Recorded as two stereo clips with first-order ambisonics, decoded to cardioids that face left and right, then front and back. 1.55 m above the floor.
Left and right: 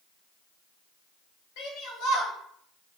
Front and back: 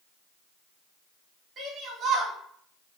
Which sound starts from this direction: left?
A shout, at 1.6 s.